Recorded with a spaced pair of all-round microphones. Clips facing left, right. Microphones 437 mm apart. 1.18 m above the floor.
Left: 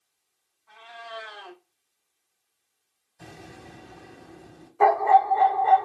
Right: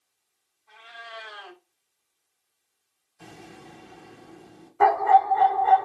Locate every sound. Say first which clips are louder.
0.7 s a cat meowing: left 4 dB; 65° left (ahead or behind), 1.4 m
3.2 s an explosion: even; 55° left (ahead or behind), 2 m
4.8 s a dog barking: left 1 dB; 30° right (ahead or behind), 0.7 m